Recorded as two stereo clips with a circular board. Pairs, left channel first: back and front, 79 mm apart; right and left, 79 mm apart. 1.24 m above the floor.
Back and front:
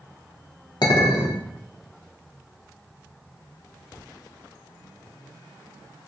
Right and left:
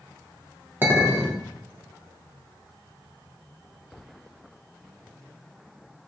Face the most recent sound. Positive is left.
turn(degrees=155)